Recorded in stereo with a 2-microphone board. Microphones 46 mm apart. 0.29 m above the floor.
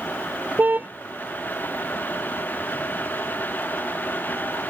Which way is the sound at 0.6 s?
40° right (ahead or behind).